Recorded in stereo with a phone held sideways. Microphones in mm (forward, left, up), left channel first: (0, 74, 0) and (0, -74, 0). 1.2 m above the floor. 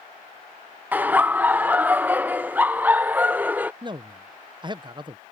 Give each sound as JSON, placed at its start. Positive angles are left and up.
{"t": 0.9, "sound": "laughter", "side_deg": -10}
{"t": 3.8, "sound": "a man speaking", "side_deg": -30}